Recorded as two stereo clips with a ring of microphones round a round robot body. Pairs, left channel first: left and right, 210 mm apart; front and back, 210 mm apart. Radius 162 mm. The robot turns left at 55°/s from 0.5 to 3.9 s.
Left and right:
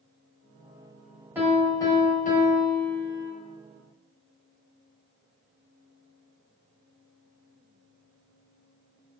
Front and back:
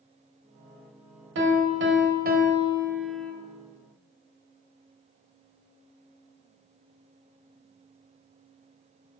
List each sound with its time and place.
1.4 s a piano: 170° right, 1.2 m; by 3.3 s 80° left, 1.2 m